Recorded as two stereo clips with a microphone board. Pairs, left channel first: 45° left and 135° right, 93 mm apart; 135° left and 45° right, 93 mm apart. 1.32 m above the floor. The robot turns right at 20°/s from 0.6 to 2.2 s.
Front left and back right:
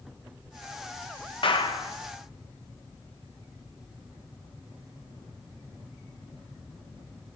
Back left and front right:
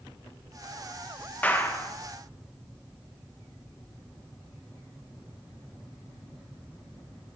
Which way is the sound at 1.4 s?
60° left.